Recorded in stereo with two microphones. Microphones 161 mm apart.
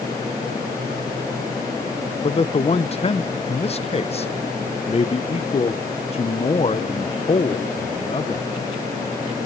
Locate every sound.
2.2 s a man speaking: 40° left (ahead or behind), 0.8 m